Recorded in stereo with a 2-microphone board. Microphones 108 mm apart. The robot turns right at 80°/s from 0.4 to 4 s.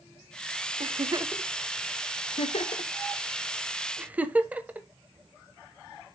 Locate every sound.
0.8 s a giggle: 60° right (ahead or behind), 0.7 m; by 4.9 s 15° right (ahead or behind), 0.7 m